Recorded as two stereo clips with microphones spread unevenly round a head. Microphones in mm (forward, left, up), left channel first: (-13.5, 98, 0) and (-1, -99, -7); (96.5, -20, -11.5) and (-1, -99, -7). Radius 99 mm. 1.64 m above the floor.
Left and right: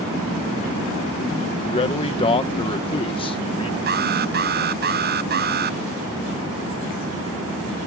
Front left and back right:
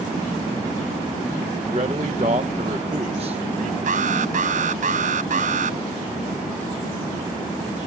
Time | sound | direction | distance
1.6 | a man speaking | 160° left | ?
3.9 | an alarm | 130° right | ?